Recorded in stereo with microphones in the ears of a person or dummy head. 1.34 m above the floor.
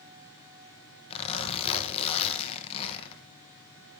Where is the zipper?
35° left (ahead or behind), 1.1 m.